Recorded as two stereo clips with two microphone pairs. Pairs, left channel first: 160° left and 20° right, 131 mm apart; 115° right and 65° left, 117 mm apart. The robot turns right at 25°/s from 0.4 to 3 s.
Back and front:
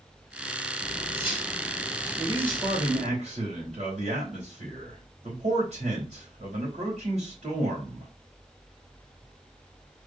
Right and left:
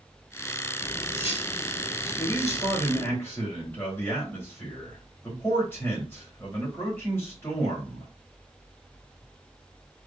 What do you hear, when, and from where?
0.8 s cutlery clinking: 160° right, 2.5 m; by 3.2 s 105° right, 2.5 m
2.2 s a man speaking: 65° right, 3.5 m; by 8.1 s 45° right, 3.5 m